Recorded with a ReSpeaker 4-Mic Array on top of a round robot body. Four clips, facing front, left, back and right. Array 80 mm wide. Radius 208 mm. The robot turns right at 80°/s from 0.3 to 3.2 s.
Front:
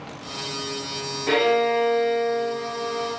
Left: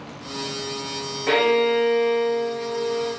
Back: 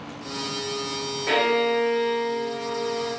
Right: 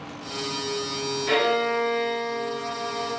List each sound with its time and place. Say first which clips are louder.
1.3 s a violin: left 4 dB, front 2 dB; 90° left, 1.8 m; by 3.1 s 120° right, 1.8 m